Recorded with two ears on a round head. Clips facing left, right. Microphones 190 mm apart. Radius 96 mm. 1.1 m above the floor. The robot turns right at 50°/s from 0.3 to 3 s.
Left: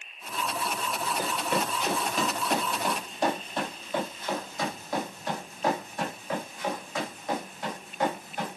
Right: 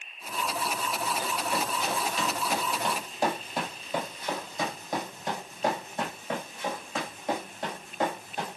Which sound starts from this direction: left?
Running footsteps, at 1.2 s.